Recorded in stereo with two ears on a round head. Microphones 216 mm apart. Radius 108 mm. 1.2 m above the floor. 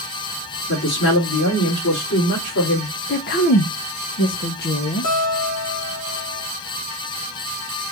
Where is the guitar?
65° left (ahead or behind), 1.3 m.